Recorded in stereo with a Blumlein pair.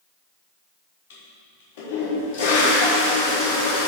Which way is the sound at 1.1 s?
50° left.